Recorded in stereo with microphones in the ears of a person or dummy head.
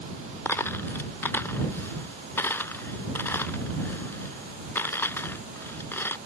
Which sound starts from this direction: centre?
A dropped coin, at 0.5 s.